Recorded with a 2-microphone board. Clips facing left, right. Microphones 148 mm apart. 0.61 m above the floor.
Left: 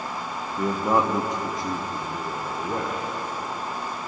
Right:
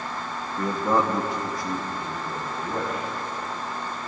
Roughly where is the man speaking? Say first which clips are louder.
Left 1 dB; centre.